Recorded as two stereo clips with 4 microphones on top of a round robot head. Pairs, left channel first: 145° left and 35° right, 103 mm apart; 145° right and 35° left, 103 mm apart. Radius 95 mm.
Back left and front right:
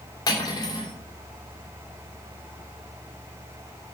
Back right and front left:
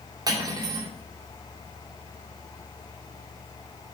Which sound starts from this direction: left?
Cutlery clinking, at 0.3 s.